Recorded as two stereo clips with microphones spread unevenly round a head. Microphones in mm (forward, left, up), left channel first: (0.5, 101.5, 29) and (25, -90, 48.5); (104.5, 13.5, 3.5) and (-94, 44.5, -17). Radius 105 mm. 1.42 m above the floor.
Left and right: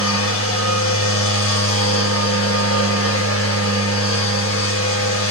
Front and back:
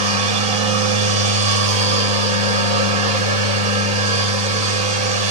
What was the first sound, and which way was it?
A machine running, 115° left.